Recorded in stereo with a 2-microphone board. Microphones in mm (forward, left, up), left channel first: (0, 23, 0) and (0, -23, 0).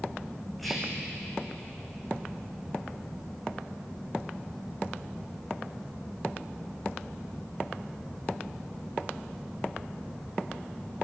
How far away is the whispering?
About 7.5 m.